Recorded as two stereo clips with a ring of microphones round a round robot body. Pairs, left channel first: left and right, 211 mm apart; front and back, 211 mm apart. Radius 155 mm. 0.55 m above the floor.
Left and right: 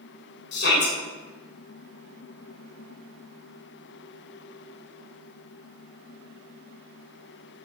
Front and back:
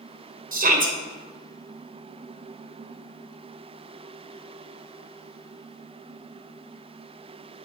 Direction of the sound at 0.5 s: 135° left.